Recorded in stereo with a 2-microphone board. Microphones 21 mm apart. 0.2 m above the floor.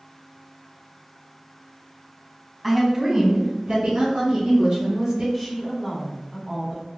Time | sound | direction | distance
2.6 | a woman speaking | centre (ahead or behind) | 1.2 m
5.3 | a woman speaking | 5° right (ahead or behind) | 1.4 m